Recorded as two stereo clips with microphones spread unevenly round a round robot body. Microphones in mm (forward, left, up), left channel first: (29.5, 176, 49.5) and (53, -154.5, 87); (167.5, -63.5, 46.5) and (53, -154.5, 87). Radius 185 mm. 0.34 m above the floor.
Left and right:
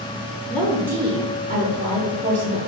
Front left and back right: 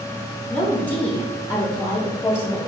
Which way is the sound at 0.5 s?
35° left.